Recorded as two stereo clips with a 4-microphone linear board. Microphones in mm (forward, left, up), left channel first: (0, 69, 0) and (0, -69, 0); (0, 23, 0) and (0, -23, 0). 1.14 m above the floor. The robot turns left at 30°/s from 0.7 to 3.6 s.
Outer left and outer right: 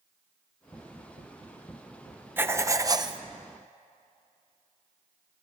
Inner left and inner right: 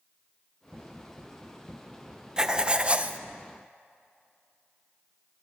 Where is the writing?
15° right (ahead or behind), 0.8 m; by 3.2 s 35° right (ahead or behind), 0.8 m.